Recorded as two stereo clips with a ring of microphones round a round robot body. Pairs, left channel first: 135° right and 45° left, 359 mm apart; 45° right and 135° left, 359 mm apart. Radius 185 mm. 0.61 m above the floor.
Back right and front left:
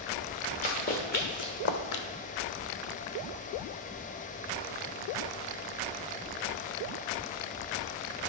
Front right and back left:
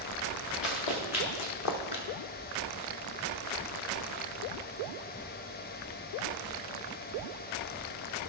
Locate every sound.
0.6 s running footsteps: 65° right, 2.5 m; by 2.0 s 115° right, 0.9 m